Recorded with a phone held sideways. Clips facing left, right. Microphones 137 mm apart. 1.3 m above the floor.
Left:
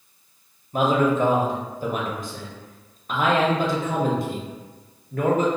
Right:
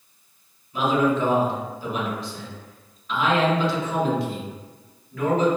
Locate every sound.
0.7 s a man speaking: 50° left (ahead or behind), 0.7 m